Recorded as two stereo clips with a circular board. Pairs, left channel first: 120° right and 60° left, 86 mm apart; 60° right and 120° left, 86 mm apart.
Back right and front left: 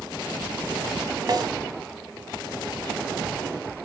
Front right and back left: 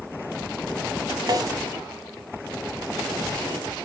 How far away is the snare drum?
About 0.9 m.